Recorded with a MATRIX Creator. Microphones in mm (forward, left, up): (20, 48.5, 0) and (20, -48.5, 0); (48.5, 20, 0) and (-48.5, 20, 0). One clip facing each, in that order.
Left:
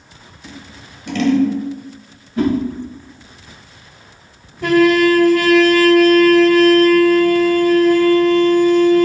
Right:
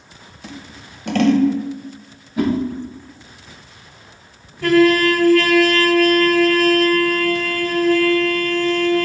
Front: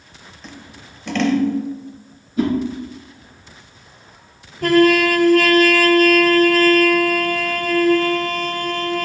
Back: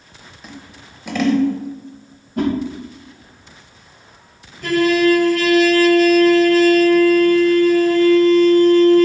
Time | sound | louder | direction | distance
0.4 | scissors | right 1 dB, back 1 dB | 100° right | 1.0 m
2.4 | a whoosh | left 2 dB, even | 170° right | 2.5 m
4.6 | a trumpet | left 1 dB, front 1 dB | 20° left | 1.6 m